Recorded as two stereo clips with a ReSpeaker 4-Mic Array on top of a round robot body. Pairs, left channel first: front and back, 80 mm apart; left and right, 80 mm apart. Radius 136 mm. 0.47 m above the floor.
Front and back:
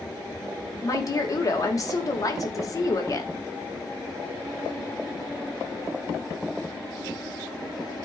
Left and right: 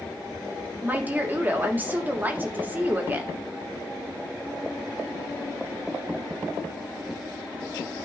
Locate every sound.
0.8 s a woman speaking: 30° right, 2 m